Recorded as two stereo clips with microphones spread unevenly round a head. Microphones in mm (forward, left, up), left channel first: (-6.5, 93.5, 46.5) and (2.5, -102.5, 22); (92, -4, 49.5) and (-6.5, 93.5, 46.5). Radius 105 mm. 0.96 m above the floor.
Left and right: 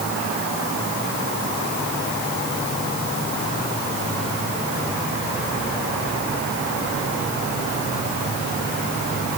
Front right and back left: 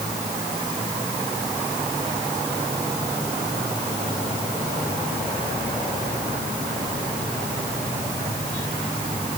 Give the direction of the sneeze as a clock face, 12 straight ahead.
No sneeze in this recording.